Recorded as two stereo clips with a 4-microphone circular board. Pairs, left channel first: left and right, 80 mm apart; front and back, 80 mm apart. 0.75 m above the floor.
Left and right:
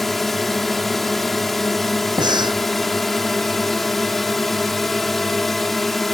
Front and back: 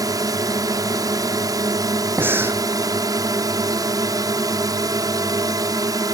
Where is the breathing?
115° right.